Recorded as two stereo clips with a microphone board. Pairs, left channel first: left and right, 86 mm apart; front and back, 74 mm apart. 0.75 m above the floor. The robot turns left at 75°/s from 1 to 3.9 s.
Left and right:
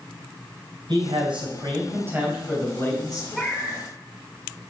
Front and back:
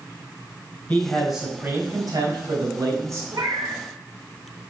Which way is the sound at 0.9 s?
75° right.